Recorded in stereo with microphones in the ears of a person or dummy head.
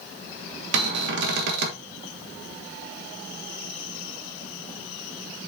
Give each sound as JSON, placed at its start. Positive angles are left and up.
{"t": 0.7, "sound": "a cupboard door", "side_deg": -70, "distance_m": 1.4}